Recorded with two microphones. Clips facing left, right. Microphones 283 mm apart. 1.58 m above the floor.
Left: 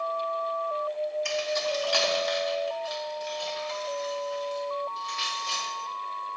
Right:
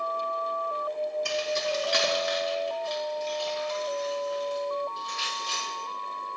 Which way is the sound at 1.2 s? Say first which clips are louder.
Even; 45° right (ahead or behind).